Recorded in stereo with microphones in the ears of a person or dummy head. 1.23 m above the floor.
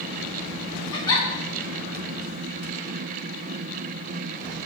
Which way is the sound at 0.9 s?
80° left.